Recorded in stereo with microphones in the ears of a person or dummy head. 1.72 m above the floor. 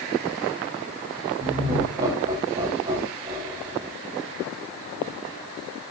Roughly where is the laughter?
Right.